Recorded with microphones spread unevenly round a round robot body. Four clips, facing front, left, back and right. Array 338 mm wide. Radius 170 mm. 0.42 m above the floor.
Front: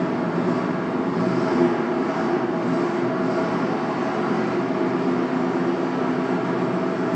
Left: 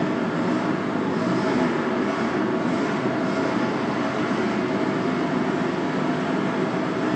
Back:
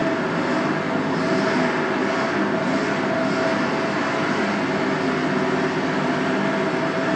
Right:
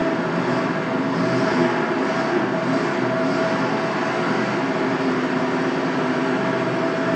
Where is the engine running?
95° right, 2 m.